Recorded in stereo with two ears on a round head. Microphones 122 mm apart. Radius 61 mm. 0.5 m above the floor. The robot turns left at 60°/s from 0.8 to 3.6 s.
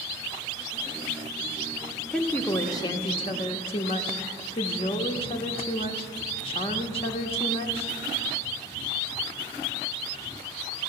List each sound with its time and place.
2.1 s a woman speaking: 170° left, 0.9 m; by 8.0 s 80° left, 0.9 m